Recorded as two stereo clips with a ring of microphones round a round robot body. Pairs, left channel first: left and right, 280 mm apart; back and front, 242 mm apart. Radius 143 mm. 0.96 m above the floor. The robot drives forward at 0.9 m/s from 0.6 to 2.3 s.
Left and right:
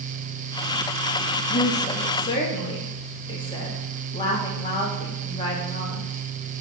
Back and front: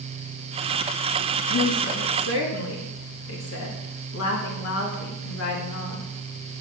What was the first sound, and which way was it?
A woman speaking, 150° left.